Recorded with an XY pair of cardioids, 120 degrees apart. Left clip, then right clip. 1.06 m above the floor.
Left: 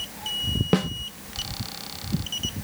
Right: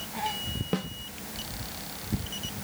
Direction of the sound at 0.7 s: 50° left.